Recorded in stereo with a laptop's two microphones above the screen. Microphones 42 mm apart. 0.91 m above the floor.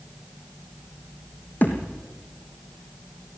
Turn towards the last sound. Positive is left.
turn(degrees=45)  # may be behind; listen again after turning